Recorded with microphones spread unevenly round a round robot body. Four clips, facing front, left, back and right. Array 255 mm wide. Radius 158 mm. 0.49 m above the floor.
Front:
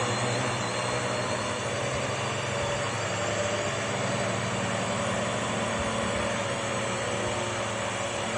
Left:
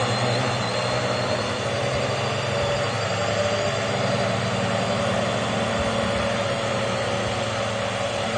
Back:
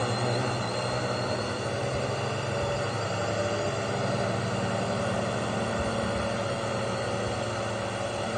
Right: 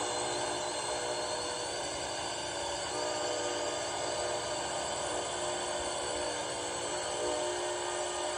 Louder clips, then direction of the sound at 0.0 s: Left 11 dB, even; 105° left.